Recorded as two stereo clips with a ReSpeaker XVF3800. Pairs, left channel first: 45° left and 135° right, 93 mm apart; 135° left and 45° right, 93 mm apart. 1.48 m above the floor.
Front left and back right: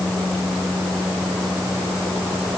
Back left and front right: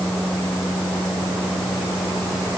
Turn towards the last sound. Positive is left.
No sound to turn to.